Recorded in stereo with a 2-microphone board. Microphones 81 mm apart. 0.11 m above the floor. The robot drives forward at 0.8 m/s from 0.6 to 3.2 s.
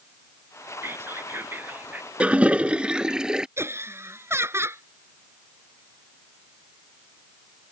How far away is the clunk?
No clunk in this recording.